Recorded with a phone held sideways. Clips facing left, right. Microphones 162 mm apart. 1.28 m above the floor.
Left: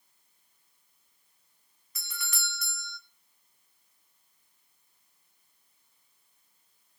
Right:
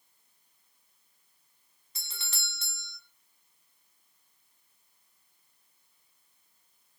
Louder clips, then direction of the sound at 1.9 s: Left 6 dB; 30° right (ahead or behind).